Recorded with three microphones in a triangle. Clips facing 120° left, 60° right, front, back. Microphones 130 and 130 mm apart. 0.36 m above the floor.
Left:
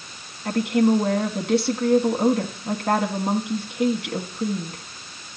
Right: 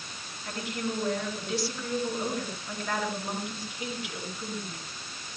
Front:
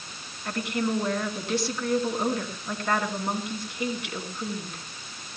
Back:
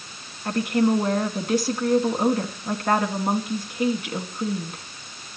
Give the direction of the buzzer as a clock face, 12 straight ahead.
No buzzer in this recording.